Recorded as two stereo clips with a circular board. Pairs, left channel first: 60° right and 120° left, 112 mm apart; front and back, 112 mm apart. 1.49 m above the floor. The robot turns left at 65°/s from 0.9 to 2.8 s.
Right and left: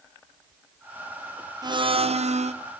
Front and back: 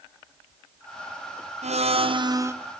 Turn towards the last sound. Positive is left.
turn(degrees=95)